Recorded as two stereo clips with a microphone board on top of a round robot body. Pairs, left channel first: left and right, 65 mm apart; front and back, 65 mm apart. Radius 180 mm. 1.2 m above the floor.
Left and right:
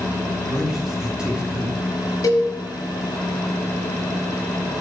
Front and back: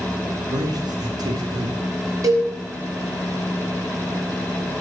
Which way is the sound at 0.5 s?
175° right.